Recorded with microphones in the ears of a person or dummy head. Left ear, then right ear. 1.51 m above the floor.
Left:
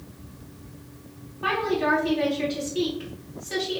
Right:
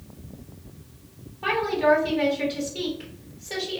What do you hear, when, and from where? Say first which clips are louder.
1.4 s a woman speaking: right 2 dB; 20° right (ahead or behind), 1.5 m